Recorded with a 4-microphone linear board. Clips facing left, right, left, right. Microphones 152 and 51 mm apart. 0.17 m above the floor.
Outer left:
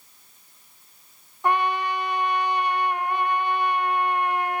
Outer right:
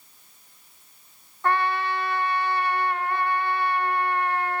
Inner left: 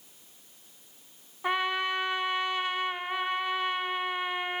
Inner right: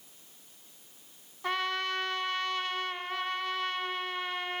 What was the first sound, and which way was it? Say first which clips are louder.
A trumpet: outer left 1 dB, inner left 3 dB; 15° left (ahead or behind).